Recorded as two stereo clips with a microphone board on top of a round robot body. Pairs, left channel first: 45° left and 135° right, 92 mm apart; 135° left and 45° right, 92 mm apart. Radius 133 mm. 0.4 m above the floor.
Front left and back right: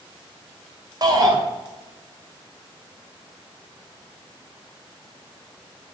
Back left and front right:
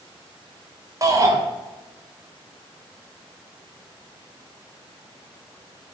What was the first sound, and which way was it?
A shout, 95° right.